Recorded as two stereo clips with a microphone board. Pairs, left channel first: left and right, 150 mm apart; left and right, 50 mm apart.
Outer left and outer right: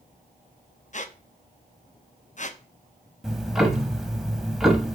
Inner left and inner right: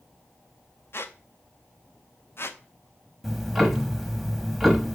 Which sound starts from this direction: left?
A squeak, at 0.9 s.